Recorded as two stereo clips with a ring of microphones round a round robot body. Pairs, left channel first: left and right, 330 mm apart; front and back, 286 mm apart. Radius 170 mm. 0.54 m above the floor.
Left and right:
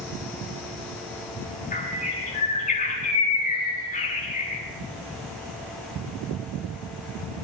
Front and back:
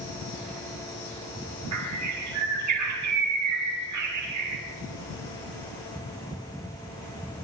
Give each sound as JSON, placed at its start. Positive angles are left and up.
{"t": 1.7, "sound": "a bird", "azimuth_deg": 160, "distance_m": 6.5}